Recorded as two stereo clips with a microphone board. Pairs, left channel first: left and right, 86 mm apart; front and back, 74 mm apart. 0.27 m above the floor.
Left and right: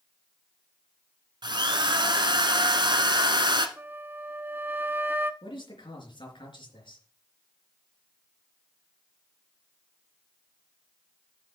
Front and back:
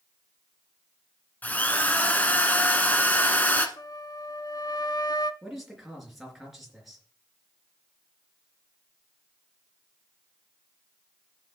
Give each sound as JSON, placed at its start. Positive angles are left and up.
{"t": 1.4, "sound": "a drill", "azimuth_deg": -65, "distance_m": 1.2}
{"t": 3.8, "sound": "a flute", "azimuth_deg": -25, "distance_m": 0.6}
{"t": 5.4, "sound": "a man speaking", "azimuth_deg": 95, "distance_m": 3.5}